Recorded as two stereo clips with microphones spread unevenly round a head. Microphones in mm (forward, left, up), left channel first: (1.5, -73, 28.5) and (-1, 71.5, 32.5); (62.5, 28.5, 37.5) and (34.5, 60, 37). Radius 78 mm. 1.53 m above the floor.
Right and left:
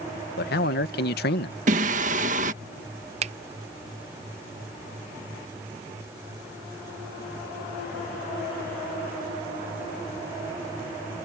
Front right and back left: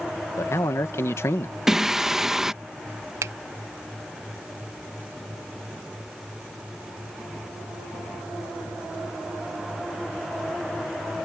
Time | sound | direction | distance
0.4 | a man speaking | 75° right | ?
1.7 | singing | 50° left | ?
3.2 | a finger snap | 140° left | ?